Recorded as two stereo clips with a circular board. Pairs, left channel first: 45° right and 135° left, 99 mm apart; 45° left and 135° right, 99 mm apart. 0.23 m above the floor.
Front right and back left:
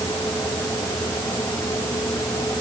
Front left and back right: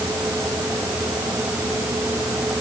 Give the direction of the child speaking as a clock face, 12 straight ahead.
I don't hear a child speaking.